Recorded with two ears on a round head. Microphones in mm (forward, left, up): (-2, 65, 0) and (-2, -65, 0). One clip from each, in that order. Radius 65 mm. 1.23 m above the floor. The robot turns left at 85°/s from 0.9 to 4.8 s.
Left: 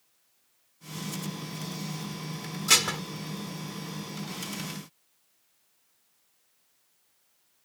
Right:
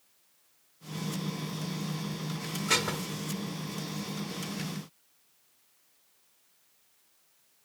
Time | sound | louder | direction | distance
2.7 | dishes clattering | left 5 dB | 70° left (ahead or behind) | ?